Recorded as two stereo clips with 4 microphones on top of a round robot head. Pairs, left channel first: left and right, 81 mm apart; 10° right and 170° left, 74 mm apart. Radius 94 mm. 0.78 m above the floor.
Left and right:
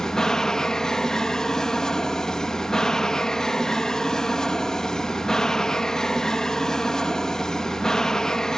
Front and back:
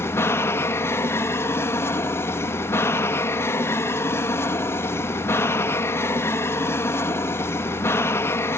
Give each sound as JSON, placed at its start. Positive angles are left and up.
{"t": 0.0, "sound": "an aircraft", "azimuth_deg": 10}